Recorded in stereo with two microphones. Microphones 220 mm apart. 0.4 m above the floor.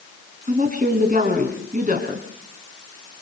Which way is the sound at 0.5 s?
35° right (ahead or behind).